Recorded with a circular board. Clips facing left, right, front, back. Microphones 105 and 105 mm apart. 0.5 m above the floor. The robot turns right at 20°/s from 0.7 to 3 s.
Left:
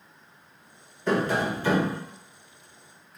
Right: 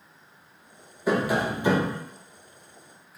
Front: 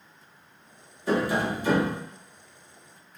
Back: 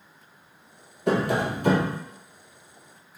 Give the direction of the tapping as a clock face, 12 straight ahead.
6 o'clock.